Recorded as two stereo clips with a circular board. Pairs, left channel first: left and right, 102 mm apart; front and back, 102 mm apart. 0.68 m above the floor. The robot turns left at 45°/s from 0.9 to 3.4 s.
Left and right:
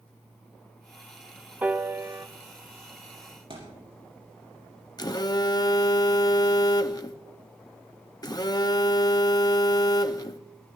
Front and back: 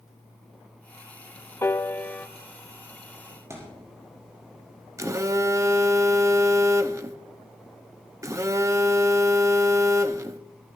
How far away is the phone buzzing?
About 0.7 m.